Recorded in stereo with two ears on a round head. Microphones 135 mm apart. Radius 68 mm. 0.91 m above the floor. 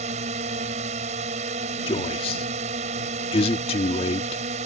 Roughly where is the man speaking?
Left.